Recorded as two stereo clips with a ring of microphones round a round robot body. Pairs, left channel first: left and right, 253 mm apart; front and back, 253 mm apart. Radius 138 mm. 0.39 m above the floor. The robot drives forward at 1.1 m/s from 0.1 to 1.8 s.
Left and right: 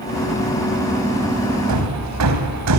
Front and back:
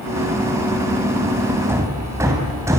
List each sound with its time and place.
1.7 s hammering: 100° right, 3 m